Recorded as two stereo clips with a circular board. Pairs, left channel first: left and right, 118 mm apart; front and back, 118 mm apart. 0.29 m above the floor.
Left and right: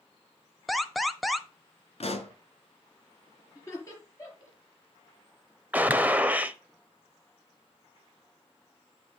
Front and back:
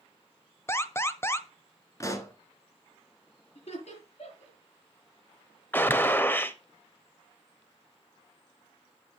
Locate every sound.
0.7 s an alarm: straight ahead, 0.7 m
2.0 s a pop: 60° left, 1.3 m
3.5 s laughter: 25° left, 5 m
5.7 s a gunshot: 40° right, 0.7 m